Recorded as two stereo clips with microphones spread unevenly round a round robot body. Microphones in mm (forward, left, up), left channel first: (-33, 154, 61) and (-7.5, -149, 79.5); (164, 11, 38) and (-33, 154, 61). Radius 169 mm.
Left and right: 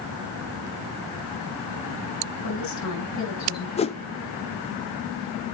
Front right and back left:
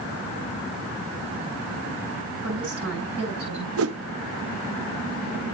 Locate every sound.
2.4 s a woman speaking: 125° left, 8.5 m; by 3.7 s 130° left, 8.5 m
3.8 s a whoosh: 160° left, 0.7 m